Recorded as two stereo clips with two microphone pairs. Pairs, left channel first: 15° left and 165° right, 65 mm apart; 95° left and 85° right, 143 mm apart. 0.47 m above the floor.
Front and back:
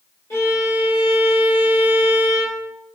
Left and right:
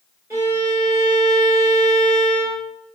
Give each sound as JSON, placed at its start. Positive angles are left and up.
{"t": 0.3, "sound": "a violin", "azimuth_deg": -20, "distance_m": 1.3}